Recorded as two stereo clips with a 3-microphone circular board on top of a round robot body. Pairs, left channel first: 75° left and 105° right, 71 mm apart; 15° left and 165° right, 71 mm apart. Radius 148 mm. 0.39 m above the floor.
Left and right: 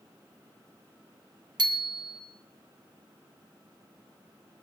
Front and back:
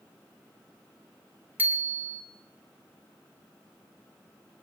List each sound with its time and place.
1.6 s a bicycle bell: 95° right, 2 m